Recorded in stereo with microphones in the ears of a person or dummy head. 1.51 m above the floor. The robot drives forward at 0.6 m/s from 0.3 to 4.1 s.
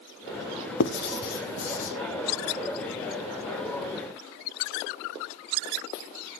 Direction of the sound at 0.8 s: 65° left (ahead or behind).